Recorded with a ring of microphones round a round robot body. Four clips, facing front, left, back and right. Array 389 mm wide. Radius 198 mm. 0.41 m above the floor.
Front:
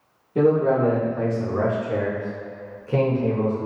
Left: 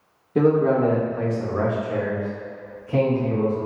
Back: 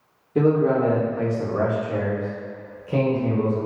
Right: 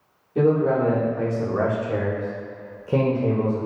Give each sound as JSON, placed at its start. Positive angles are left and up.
{"t": 0.3, "sound": "a man speaking", "azimuth_deg": 115, "distance_m": 1.0}